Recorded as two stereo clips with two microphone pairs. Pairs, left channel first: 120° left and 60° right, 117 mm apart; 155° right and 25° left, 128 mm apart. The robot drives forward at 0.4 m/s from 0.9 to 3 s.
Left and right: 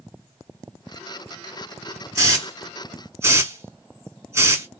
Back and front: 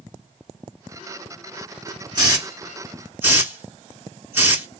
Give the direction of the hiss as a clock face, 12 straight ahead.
12 o'clock.